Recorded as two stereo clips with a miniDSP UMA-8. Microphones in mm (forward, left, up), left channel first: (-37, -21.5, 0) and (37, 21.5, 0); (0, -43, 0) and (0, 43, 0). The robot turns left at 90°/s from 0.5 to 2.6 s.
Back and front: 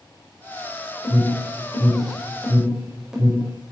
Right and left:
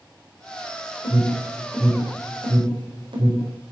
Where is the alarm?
110° right, 5 m; by 3.5 s 110° left, 5 m.